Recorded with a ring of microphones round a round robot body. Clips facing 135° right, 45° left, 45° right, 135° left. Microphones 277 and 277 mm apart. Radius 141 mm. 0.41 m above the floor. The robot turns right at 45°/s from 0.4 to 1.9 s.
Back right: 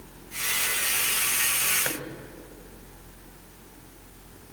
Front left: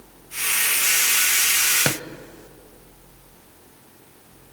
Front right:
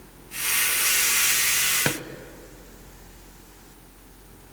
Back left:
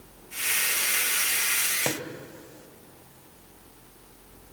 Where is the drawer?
15° left, 1.1 m.